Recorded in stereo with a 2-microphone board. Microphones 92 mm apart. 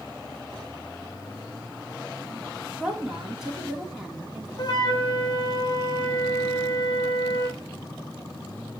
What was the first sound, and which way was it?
A woman speaking, 5° right (ahead or behind).